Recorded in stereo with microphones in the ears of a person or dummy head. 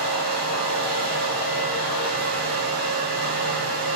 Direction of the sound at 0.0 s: 60° right (ahead or behind).